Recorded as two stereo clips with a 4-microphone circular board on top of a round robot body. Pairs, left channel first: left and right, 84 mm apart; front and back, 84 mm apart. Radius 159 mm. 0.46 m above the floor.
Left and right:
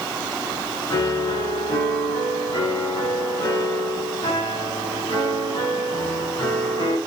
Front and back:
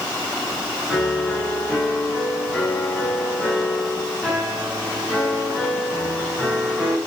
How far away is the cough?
I don't hear a cough.